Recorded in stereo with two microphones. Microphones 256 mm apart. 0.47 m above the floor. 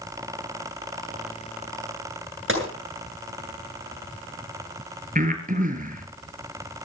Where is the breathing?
30° right (ahead or behind), 3.5 m.